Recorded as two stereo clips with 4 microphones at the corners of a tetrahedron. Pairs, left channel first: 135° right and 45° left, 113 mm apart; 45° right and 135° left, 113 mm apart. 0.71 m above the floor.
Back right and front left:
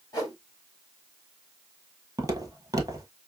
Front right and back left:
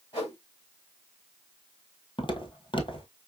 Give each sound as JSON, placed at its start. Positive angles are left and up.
{"t": 0.1, "sound": "a whoosh", "azimuth_deg": -80, "distance_m": 3.0}
{"t": 2.2, "sound": "footsteps", "azimuth_deg": -10, "distance_m": 1.3}